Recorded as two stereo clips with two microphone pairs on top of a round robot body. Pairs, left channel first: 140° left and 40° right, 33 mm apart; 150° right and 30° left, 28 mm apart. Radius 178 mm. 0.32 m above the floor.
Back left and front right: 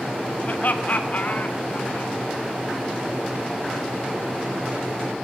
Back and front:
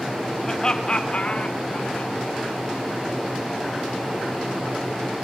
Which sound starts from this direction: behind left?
Laughter, at 0.4 s.